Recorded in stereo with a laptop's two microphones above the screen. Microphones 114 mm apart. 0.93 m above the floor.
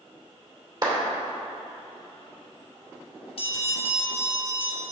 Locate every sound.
0.8 s a clap: 40° right (ahead or behind), 2.5 m
3.4 s a bell: 60° left (ahead or behind), 1.9 m